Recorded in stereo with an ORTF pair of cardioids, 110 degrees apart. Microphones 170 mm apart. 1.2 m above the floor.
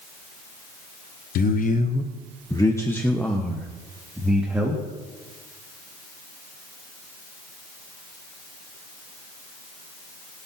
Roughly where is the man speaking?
Ahead left.